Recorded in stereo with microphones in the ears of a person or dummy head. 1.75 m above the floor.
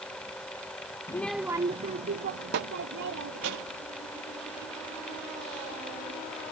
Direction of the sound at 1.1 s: 15° left (ahead or behind).